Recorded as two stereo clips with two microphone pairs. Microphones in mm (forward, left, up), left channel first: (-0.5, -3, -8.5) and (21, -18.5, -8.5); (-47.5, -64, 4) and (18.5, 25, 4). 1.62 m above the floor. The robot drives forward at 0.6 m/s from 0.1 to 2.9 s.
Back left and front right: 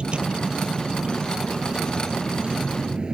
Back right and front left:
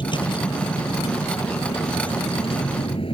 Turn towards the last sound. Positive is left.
turn(degrees=-90)